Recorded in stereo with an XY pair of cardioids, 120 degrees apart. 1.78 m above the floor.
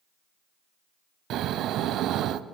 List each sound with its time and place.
1.3 s snoring: 65° right, 0.7 m